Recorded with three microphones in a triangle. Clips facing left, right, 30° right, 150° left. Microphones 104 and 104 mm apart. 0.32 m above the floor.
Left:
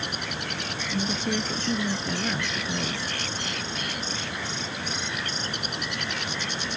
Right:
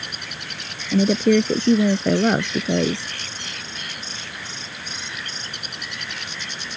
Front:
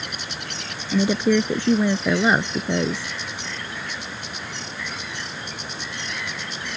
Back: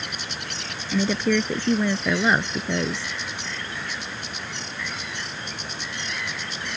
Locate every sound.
0.9 s a woman speaking: 105° right